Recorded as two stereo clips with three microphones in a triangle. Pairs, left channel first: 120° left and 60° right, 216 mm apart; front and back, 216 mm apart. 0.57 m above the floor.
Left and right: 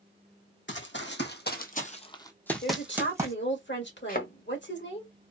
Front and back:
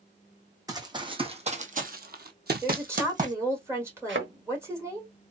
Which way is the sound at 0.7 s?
110° left.